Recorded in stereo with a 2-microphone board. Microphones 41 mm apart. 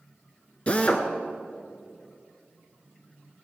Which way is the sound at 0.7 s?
30° left (ahead or behind).